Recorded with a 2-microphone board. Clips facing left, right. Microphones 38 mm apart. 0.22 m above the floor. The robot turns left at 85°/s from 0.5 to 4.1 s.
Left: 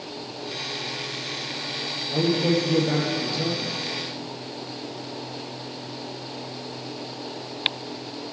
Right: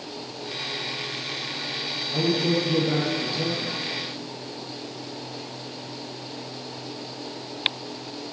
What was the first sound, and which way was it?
A man speaking, 100° left.